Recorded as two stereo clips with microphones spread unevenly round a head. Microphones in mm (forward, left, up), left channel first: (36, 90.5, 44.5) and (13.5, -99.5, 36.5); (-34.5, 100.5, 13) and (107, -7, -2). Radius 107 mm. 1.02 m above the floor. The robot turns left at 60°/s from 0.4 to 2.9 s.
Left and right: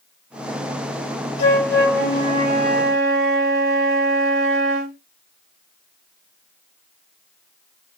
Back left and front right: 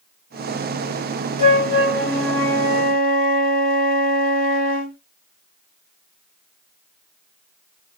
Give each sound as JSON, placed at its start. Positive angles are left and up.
{"t": 1.4, "sound": "a flute", "azimuth_deg": 25, "distance_m": 1.6}